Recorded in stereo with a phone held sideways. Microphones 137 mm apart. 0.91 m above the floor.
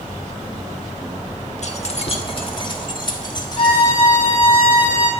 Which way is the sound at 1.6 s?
55° left (ahead or behind).